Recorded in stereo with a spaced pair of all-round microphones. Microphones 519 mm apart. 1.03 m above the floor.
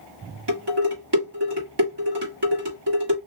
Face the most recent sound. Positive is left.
turn(degrees=-50)  # may be behind; listen again after turning